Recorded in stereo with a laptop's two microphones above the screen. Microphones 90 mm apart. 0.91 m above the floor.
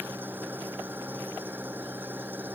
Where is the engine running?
20° right (ahead or behind).